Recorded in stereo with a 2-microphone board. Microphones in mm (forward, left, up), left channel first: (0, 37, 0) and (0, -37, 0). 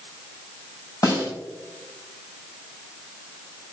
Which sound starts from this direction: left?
A snare drum, at 1.0 s.